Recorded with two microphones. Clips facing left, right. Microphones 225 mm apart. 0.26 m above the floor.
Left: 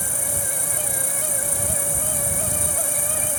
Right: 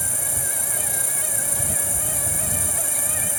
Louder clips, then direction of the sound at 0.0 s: Left 3 dB; 25° right (ahead or behind).